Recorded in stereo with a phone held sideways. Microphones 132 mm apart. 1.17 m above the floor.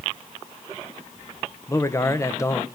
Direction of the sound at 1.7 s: 20° left (ahead or behind).